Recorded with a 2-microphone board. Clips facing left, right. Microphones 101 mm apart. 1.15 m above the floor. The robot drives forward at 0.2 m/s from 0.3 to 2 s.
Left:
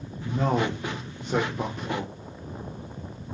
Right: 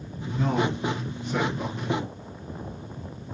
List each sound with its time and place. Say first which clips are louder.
0.2 s a man speaking: even; 70° left (ahead or behind), 0.5 m; by 2.1 s 45° left (ahead or behind), 0.7 m